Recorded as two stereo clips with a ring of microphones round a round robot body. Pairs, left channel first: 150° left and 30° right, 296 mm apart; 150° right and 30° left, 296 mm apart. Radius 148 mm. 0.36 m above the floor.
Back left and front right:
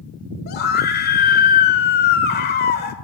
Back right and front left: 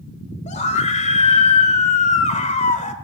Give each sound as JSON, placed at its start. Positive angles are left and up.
{"t": 0.5, "sound": "a scream", "azimuth_deg": 165, "distance_m": 1.5}